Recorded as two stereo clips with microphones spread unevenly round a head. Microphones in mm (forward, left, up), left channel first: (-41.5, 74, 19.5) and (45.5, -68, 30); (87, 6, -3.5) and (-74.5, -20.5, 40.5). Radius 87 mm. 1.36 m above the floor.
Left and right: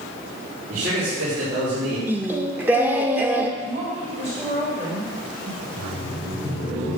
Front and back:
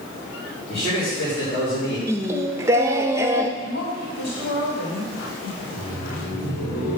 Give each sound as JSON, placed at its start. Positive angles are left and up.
{"t": 0.7, "sound": "a man speaking", "azimuth_deg": -45, "distance_m": 4.5}
{"t": 2.1, "sound": "singing", "azimuth_deg": -130, "distance_m": 0.6}
{"t": 3.6, "sound": "a woman speaking", "azimuth_deg": -10, "distance_m": 3.5}
{"t": 5.6, "sound": "laughter", "azimuth_deg": -25, "distance_m": 4.0}